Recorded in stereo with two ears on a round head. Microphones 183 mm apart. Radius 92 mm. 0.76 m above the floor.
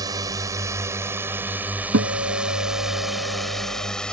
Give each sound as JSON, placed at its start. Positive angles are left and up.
{"t": 0.0, "sound": "a drone", "side_deg": -20}
{"t": 1.9, "sound": "a guitar", "side_deg": -70}